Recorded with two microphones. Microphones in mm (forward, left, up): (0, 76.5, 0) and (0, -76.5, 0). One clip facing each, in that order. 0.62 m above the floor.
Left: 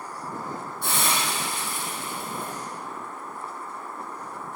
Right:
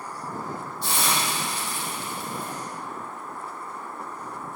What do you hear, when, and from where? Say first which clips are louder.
0.8 s a hiss: even; 55° left (ahead or behind), 5 m